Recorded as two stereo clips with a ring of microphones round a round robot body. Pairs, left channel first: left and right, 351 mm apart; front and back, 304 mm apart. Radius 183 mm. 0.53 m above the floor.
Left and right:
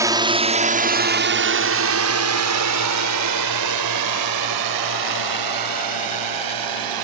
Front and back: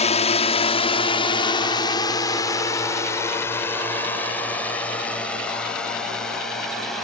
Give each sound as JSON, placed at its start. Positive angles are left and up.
{"t": 0.0, "sound": "a drone", "azimuth_deg": -25}